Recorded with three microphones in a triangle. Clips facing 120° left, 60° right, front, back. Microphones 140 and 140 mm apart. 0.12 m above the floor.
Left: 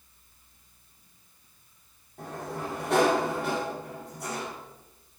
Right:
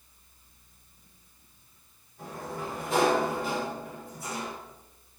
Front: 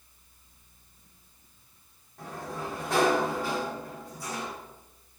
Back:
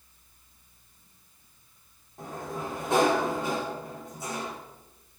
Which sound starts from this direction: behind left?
A sliding door, at 2.2 s.